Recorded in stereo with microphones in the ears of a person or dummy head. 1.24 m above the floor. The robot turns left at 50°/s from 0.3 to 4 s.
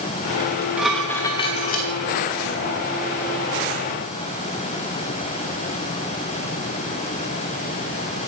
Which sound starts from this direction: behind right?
Dishes clattering, at 0.4 s.